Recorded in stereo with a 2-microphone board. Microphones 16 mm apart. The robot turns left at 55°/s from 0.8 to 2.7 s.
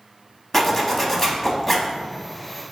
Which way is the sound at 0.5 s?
20° left (ahead or behind).